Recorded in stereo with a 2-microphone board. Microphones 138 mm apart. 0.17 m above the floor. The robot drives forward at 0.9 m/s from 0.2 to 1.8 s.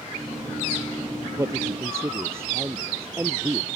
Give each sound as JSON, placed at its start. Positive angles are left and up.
{"t": 1.4, "sound": "a man speaking", "side_deg": -20}